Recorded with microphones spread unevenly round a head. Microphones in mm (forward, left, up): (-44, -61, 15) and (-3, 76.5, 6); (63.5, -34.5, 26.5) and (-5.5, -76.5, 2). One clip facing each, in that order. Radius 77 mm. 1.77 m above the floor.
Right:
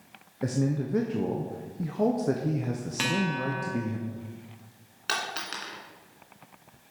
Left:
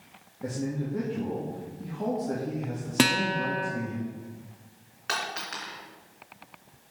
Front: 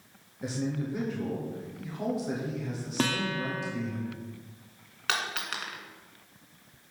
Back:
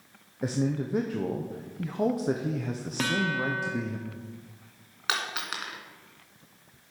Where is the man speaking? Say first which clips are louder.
Right 4 dB, back 4 dB; 105° right, 0.9 m.